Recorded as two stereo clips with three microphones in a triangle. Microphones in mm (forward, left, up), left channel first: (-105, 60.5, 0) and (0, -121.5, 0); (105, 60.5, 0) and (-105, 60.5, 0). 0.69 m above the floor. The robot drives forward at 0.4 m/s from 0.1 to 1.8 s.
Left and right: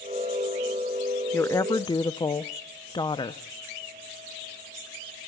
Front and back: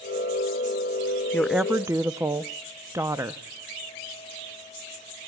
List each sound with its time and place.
1.3 s a woman speaking: 65° left, 0.5 m; by 3.4 s 130° left, 0.5 m